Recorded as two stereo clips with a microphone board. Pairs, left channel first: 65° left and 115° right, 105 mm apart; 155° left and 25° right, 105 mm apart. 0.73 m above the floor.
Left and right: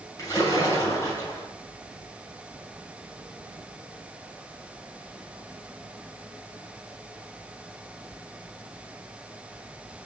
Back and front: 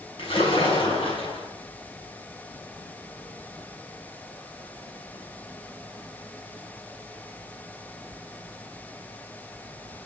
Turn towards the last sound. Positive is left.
turn(degrees=125)